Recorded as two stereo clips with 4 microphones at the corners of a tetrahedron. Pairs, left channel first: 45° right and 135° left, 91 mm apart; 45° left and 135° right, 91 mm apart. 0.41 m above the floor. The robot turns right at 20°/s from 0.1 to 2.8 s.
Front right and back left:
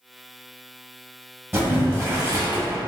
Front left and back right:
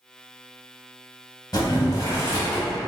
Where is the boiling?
80° left, 1.2 m; by 2.8 s 105° left, 1.2 m.